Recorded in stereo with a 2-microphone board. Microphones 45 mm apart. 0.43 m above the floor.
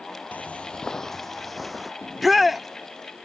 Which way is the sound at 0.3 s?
40° left (ahead or behind).